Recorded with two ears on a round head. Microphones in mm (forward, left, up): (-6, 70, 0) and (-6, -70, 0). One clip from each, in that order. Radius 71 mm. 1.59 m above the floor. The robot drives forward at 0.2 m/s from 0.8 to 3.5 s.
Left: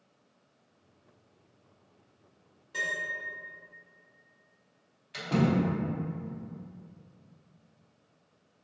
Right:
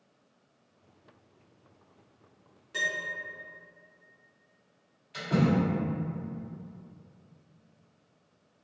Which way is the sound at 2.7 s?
25° right (ahead or behind).